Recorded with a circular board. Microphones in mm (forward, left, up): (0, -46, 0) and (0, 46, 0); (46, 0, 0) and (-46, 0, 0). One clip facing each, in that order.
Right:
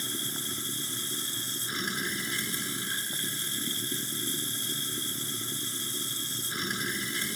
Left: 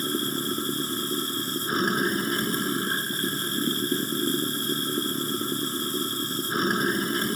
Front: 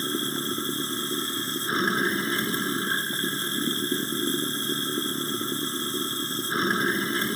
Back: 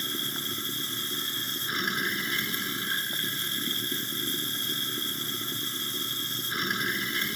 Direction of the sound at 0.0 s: 55° left.